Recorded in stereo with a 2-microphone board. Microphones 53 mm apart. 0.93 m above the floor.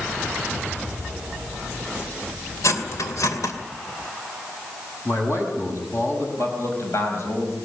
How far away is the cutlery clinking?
About 2.5 m.